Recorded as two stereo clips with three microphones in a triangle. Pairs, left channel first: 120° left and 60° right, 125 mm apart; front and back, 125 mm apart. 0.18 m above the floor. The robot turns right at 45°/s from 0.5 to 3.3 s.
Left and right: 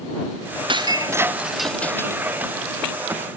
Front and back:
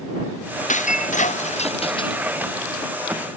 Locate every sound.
0.7 s breaking glass: 10° right; by 3.3 s 105° left